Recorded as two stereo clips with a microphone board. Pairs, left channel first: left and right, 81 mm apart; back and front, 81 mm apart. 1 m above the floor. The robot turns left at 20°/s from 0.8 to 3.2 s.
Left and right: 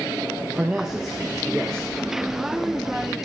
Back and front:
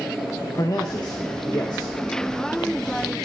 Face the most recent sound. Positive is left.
turn(degrees=145)